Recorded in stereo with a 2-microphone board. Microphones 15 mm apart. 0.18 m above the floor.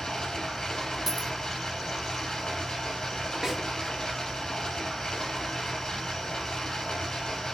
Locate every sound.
0.0 s running water: 50° left (ahead or behind), 3 m
1.1 s a dropped coin: 25° right (ahead or behind), 0.8 m
3.4 s a snare drum: 45° right (ahead or behind), 1.8 m